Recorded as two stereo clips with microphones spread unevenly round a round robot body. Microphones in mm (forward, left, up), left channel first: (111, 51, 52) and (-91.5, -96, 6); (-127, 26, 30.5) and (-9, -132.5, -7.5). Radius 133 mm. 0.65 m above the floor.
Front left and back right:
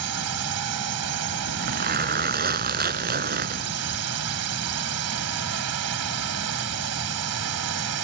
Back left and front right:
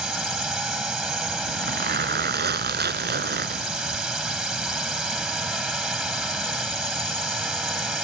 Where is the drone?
140° right.